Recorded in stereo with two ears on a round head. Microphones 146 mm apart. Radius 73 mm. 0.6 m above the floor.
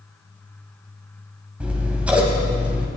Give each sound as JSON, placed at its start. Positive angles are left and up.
{"t": 1.6, "sound": "scissors", "side_deg": -10, "distance_m": 2.5}